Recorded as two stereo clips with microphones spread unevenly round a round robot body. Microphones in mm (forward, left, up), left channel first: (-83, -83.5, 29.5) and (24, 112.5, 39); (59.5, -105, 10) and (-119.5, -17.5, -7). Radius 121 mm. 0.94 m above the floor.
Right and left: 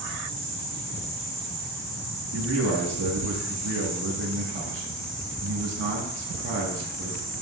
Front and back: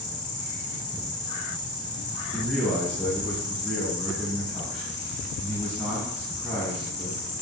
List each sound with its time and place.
0.0 s an insect: 40° right, 1.7 m
2.3 s a man speaking: 60° left, 1.6 m